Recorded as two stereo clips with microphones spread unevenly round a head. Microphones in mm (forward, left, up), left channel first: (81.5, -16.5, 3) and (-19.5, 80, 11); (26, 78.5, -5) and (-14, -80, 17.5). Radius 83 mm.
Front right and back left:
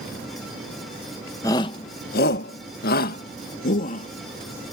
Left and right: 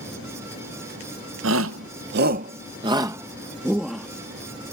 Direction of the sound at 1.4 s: 115° right.